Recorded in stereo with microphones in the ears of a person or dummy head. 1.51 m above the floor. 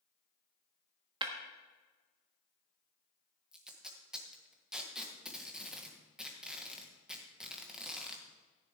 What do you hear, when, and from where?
1.2 s breaking glass: 30° right (ahead or behind), 1.4 m
3.5 s tape being pulled: centre (ahead or behind), 1.4 m